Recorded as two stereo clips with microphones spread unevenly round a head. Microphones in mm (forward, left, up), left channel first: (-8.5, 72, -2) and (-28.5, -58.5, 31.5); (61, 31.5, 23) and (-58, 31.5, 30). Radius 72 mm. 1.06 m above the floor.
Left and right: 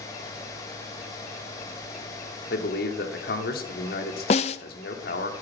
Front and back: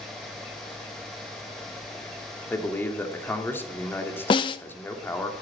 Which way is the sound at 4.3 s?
35° left.